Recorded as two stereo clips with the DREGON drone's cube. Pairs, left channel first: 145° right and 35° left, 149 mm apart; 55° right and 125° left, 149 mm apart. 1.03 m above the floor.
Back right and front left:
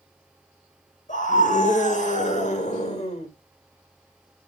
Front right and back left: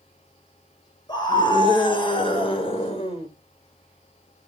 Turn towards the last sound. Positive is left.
turn(degrees=-105)